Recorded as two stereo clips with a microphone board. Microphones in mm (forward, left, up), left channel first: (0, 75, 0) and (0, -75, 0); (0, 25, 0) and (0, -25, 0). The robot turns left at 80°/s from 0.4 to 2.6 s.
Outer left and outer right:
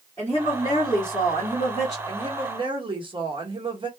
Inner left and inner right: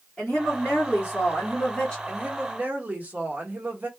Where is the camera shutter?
No camera shutter in this recording.